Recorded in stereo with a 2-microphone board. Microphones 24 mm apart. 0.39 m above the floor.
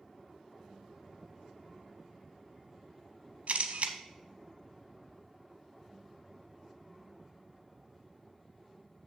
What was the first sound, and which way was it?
A camera shutter, 75° right (ahead or behind).